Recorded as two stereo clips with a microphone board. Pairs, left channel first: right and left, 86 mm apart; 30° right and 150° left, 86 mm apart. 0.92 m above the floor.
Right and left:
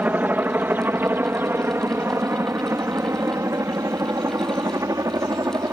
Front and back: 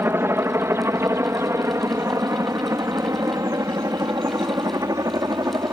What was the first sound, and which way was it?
A helicopter, 135° left.